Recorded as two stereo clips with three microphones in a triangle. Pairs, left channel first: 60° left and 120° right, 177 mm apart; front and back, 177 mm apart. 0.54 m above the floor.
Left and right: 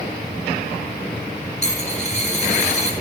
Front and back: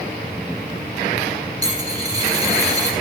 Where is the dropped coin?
110° left, 1.8 m.